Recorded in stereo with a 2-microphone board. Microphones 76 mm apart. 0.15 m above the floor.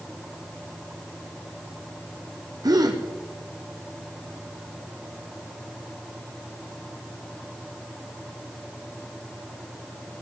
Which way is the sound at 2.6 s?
60° right (ahead or behind).